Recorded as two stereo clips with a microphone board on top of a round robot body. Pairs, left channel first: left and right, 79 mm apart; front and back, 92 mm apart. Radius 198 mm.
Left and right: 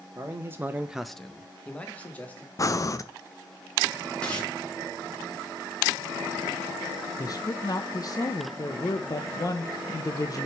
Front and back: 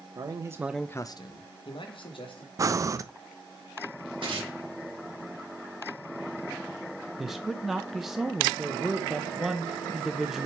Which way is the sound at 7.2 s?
95° left.